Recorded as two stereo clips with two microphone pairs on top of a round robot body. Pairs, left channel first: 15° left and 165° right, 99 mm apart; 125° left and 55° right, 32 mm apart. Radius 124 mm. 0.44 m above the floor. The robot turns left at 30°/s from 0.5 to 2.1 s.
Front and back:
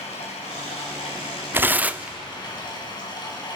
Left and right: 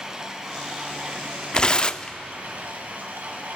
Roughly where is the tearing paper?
Behind left.